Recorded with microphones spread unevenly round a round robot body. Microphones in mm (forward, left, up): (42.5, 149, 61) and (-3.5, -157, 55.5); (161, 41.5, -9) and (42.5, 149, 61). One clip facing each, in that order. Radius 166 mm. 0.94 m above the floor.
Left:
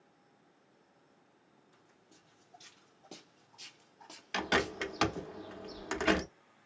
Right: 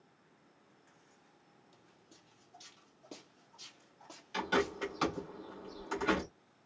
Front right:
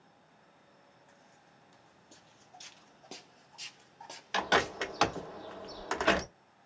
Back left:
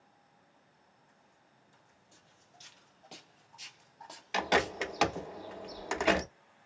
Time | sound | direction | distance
1.7 | footsteps | 30° right | 1.6 m
4.3 | a bird | 70° left | 0.9 m